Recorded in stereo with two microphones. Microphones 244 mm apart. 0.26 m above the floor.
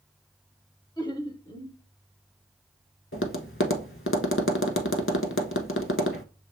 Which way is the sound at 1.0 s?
15° left (ahead or behind).